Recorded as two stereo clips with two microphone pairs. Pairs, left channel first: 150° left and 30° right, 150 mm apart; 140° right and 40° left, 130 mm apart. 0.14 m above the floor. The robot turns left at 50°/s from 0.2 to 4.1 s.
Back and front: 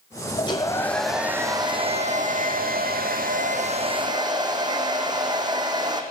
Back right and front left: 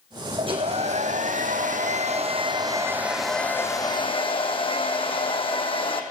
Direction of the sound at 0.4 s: 95° left.